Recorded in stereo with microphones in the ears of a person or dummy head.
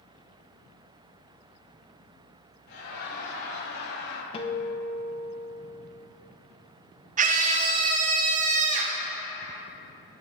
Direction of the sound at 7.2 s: 35° right (ahead or behind).